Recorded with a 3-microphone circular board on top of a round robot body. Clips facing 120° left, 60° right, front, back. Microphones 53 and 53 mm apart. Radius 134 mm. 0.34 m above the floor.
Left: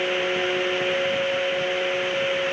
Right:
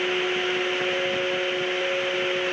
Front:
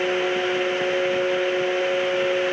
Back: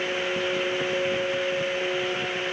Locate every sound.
Only background noise.